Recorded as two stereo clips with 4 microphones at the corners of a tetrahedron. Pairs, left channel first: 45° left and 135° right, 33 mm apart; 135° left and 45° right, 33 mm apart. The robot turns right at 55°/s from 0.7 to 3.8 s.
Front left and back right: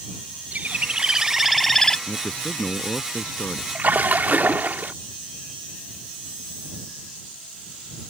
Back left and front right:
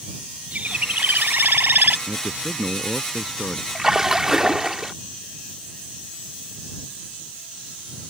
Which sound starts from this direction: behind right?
A splash, at 3.8 s.